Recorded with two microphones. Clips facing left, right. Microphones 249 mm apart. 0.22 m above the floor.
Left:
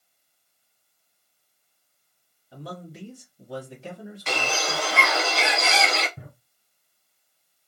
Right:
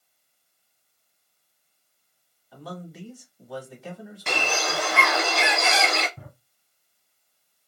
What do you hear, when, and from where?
2.5 s a man speaking: 30° left (ahead or behind), 1.2 m
4.3 s a bird: 55° right (ahead or behind), 0.9 m
6.2 s a drawer: 15° left (ahead or behind), 1.1 m